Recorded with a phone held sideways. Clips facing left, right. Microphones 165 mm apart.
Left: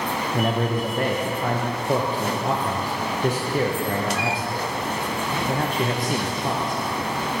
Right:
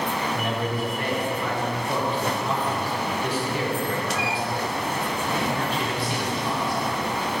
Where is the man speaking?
40° left (ahead or behind), 1.1 m.